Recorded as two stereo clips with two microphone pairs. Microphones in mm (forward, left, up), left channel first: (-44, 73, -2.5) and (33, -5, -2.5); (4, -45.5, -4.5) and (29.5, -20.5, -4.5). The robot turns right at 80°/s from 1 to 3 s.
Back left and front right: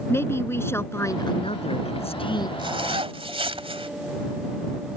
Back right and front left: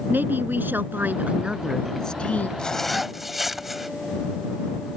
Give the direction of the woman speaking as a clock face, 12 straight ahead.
10 o'clock.